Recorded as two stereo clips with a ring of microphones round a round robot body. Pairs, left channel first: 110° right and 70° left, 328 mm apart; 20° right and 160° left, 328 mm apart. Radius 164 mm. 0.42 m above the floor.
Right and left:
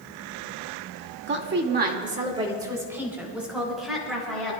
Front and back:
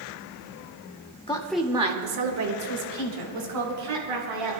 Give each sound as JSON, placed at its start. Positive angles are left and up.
{"t": 1.3, "sound": "a woman speaking", "azimuth_deg": 40, "distance_m": 1.4}